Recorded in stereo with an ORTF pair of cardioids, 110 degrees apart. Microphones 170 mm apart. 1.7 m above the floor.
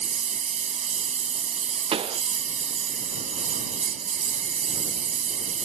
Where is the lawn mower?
45° right.